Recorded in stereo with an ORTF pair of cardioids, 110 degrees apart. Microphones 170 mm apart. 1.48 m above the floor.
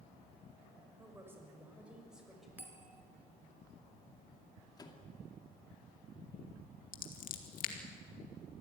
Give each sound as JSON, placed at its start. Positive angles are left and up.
{"t": 1.0, "sound": "a woman speaking", "azimuth_deg": -15, "distance_m": 6.0}
{"t": 2.6, "sound": "a bell", "azimuth_deg": -10, "distance_m": 2.5}
{"t": 4.8, "sound": "a microwave", "azimuth_deg": 25, "distance_m": 2.5}
{"t": 6.9, "sound": "scissors", "azimuth_deg": 55, "distance_m": 2.5}